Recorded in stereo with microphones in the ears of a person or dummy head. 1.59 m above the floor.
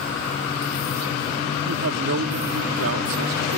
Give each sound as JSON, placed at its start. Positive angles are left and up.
{"t": 1.6, "sound": "a woman speaking", "side_deg": -75}